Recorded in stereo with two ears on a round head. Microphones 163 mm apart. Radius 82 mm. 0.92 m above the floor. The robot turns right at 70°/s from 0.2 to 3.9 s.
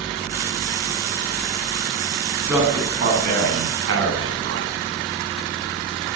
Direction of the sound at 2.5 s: 5° right (ahead or behind).